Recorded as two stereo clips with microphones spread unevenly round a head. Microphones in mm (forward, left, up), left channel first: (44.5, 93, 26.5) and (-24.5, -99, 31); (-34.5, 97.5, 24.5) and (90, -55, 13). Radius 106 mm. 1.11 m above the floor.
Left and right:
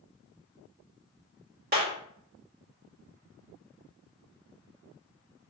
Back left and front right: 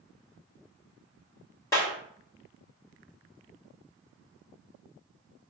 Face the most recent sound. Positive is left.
turn(degrees=-155)